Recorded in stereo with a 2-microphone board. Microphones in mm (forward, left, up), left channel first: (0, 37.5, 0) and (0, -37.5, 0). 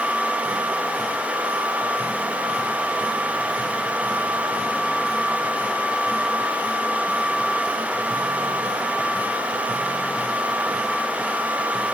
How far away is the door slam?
I don't hear a door slam.